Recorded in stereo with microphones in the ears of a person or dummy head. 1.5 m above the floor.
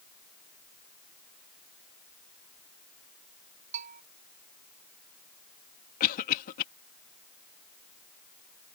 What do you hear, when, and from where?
3.7 s a bell: 40° right (ahead or behind)
6.0 s a cough: 50° left (ahead or behind)